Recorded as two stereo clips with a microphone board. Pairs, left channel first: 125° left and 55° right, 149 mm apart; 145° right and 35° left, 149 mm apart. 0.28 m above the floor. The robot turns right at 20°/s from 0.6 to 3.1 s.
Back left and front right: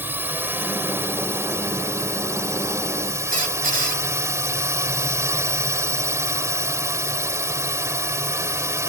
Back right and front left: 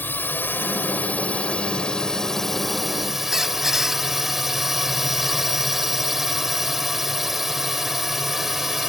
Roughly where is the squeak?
Ahead right.